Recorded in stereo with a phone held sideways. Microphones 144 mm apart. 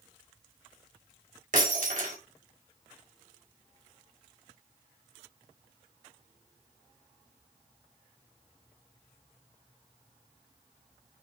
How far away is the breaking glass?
About 3.5 m.